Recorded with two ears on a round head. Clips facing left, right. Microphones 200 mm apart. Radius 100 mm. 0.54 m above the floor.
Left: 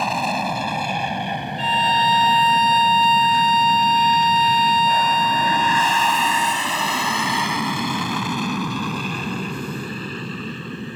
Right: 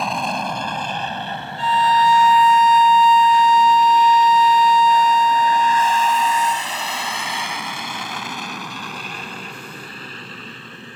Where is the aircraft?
Centre (ahead or behind); by 11.0 s 80° left.